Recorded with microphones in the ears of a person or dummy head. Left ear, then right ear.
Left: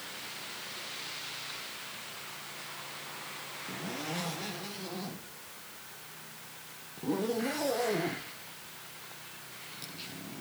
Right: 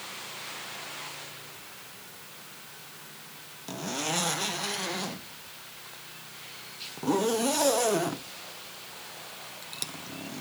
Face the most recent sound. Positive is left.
turn(degrees=-40)  # may be behind; listen again after turning